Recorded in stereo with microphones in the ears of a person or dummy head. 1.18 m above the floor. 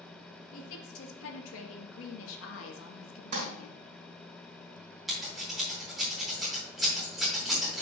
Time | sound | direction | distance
0.5 | a woman speaking | 75° left (ahead or behind) | 1.9 m
3.3 | crumpling | 45° right (ahead or behind) | 3.5 m
5.1 | scissors | centre (ahead or behind) | 3.5 m